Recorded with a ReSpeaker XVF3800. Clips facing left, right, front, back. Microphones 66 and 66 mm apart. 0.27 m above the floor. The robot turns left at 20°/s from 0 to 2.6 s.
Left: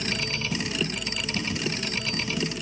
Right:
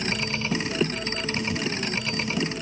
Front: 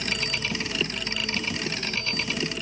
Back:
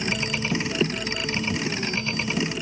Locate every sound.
Only background noise.